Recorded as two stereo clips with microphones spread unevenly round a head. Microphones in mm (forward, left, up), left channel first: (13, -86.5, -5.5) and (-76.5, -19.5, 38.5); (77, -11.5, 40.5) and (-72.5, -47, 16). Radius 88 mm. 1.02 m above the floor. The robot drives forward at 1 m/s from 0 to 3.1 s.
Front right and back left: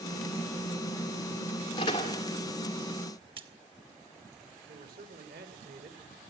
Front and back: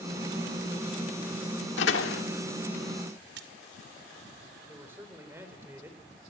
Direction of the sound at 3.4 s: Straight behind.